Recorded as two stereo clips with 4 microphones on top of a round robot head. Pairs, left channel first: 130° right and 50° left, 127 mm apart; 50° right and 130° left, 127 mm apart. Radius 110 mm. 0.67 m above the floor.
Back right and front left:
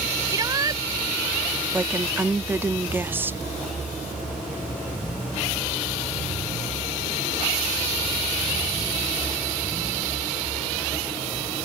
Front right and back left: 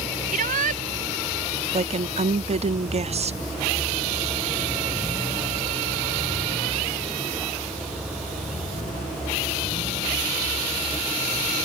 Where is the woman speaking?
120° left.